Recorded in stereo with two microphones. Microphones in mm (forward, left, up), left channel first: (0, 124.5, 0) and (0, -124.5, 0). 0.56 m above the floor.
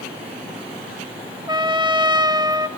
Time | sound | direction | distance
1.5 | a trumpet | 15° right (ahead or behind) | 0.9 m